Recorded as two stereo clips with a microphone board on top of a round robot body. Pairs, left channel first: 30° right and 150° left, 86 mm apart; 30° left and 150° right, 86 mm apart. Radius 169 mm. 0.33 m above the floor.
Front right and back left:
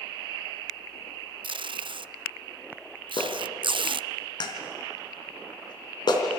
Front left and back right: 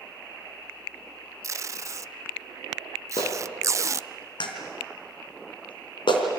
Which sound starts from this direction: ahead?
A clap, at 3.2 s.